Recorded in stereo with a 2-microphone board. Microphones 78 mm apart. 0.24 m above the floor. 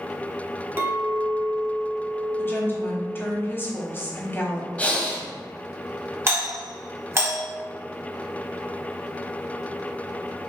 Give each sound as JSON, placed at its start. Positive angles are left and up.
{"t": 0.8, "sound": "a clink", "side_deg": -30, "distance_m": 1.2}
{"t": 2.4, "sound": "a woman speaking", "side_deg": 30, "distance_m": 1.0}
{"t": 4.8, "sound": "breathing", "side_deg": 20, "distance_m": 0.7}
{"t": 6.3, "sound": "a doorbell", "side_deg": -35, "distance_m": 1.6}